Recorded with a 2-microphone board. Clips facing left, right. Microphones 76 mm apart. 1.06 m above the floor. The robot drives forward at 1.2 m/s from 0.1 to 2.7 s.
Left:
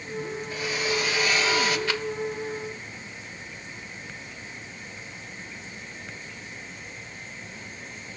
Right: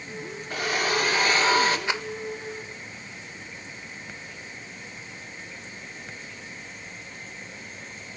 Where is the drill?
60° right (ahead or behind), 2 m; by 1.8 s 35° right (ahead or behind), 3 m.